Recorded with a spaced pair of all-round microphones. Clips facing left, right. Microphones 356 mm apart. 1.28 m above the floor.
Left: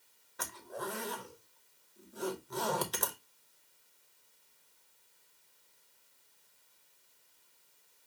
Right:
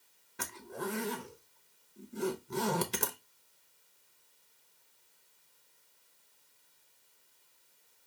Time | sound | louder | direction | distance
0.4 | a zipper | right 3 dB | 35° right (ahead or behind) | 0.7 m